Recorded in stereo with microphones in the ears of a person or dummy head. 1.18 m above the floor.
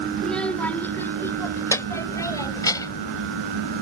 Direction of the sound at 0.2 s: 5° left (ahead or behind).